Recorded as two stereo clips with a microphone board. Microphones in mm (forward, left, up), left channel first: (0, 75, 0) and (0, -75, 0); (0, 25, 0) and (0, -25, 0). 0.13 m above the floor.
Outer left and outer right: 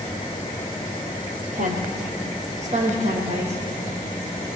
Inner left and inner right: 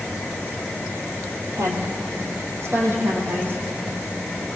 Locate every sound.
1.5 s a woman speaking: 60° right (ahead or behind), 4.5 m; by 3.6 s 45° right (ahead or behind), 7 m